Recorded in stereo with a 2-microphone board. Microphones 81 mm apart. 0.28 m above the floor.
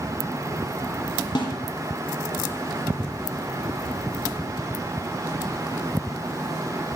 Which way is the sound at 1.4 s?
65° left (ahead or behind).